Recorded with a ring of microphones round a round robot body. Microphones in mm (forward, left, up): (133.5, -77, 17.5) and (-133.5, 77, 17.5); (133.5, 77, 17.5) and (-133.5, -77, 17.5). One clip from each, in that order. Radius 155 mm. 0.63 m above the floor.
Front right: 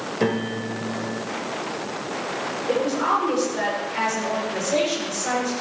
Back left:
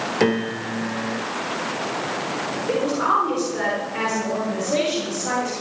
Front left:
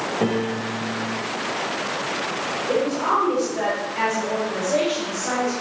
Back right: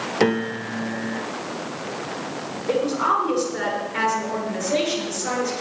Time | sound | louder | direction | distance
0.2 | a piano | back left 2 dB, back right 5 dB | 145° right | 1.3 m
2.7 | a woman speaking | back left 1 dB, back right 2 dB | 110° right | 9 m